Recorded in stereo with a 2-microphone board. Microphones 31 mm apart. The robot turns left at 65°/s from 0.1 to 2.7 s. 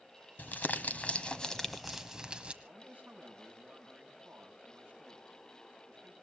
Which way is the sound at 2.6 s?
75° right (ahead or behind).